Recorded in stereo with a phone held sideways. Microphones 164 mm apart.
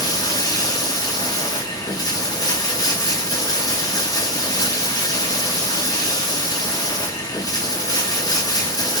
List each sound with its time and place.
0.0 s running water: 25° left (ahead or behind), 0.7 m